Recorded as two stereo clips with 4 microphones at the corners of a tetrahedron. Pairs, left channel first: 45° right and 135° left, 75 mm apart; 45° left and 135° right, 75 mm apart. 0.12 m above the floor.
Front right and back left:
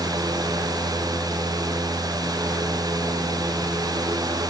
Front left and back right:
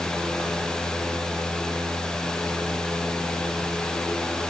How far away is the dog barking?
I don't hear a dog barking.